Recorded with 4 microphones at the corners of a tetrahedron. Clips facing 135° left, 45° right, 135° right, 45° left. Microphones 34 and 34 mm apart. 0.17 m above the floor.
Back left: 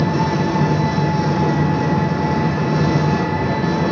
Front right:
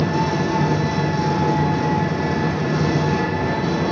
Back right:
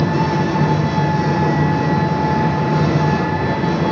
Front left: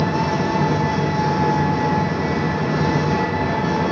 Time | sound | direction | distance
0.0 | an engine running | 160° right | 5.5 m